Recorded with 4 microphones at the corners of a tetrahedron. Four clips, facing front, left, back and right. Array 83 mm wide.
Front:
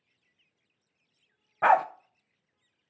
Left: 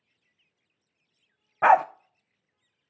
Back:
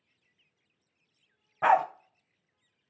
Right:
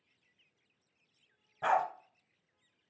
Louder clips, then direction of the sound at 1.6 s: Left 11 dB, front 1 dB; 85° left.